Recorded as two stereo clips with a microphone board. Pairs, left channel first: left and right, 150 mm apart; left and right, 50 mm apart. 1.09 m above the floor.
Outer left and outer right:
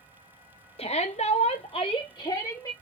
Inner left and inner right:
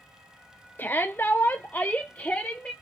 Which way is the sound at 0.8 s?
45° left (ahead or behind).